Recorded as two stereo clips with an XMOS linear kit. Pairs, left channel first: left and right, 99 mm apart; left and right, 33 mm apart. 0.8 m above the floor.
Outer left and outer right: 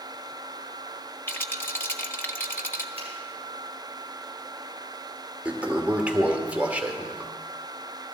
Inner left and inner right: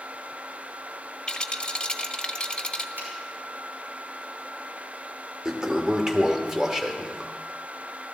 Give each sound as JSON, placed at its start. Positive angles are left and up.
{"t": 1.3, "sound": "a rattle", "side_deg": 20, "distance_m": 0.8}
{"t": 3.0, "sound": "a finger snap", "side_deg": -85, "distance_m": 5.5}
{"t": 5.5, "sound": "a toilet flushing", "side_deg": -15, "distance_m": 1.1}